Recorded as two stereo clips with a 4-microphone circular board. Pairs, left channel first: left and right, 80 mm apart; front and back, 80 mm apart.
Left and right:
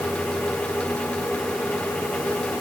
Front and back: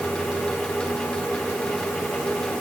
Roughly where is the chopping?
I don't hear chopping.